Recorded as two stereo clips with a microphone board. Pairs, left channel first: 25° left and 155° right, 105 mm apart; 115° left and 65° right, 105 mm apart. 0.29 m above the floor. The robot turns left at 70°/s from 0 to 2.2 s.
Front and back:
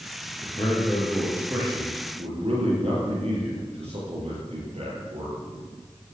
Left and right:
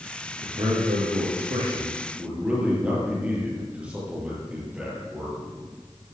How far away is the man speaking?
About 7.5 m.